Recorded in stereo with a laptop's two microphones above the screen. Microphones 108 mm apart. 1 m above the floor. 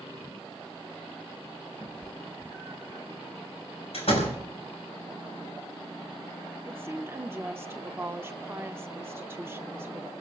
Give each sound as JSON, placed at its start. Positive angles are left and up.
{"t": 1.8, "sound": "a cat meowing", "side_deg": -20, "distance_m": 0.8}
{"t": 3.9, "sound": "a door slam", "side_deg": 70, "distance_m": 5.0}
{"t": 6.7, "sound": "a woman speaking", "side_deg": -20, "distance_m": 0.8}